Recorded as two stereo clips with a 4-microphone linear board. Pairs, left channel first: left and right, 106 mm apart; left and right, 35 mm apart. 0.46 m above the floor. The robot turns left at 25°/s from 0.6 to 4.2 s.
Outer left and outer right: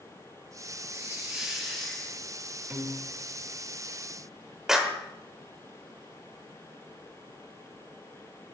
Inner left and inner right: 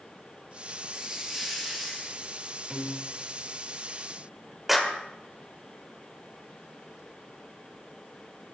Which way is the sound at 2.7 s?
15° right (ahead or behind).